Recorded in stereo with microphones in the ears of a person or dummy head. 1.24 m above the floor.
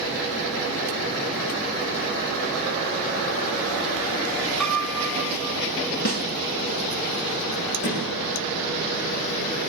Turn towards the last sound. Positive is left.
turn(degrees=75)  # may be behind; listen again after turning